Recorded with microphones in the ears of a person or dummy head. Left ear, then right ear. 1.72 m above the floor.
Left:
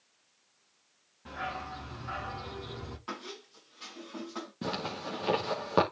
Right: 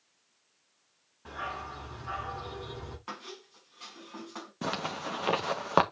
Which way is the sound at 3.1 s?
15° right (ahead or behind).